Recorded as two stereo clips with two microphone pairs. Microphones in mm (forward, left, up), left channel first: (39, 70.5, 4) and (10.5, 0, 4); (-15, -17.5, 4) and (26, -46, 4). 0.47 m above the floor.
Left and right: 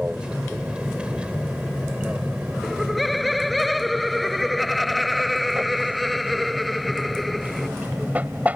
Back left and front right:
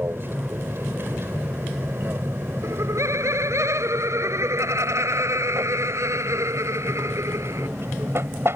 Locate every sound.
0.0 s an aircraft: 35° right; by 8.6 s 45° right
2.6 s laughter: 20° right